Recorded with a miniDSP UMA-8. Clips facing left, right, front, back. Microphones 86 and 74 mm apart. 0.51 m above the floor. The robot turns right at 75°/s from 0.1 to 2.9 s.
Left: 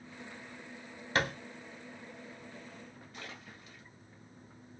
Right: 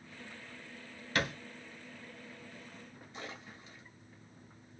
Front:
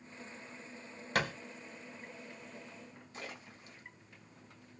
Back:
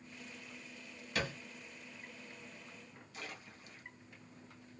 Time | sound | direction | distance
1.1 | a thud | 30° left | 0.9 m
3.1 | a splash | 40° right | 1.6 m